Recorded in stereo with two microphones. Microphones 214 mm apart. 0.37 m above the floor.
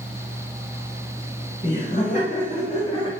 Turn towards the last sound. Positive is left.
turn(degrees=25)  # may be behind; listen again after turning